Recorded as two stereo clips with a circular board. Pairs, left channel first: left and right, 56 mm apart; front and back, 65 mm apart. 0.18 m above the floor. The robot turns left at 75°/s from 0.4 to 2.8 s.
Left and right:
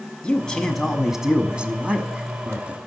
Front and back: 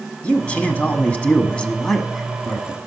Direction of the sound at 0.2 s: 40° left.